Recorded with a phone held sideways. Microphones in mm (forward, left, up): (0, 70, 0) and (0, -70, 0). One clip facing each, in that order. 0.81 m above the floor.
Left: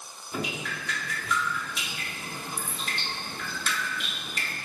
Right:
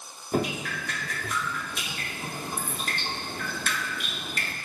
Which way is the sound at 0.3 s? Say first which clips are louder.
Right 6 dB; 50° right (ahead or behind).